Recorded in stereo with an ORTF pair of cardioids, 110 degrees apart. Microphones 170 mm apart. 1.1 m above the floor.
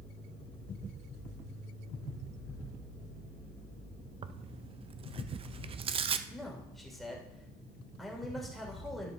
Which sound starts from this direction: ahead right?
Tearing paper, at 4.2 s.